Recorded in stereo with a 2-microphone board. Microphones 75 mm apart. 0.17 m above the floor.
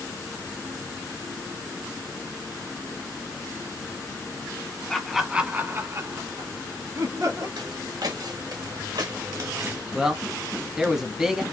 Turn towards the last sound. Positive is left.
turn(degrees=-5)  # may be behind; listen again after turning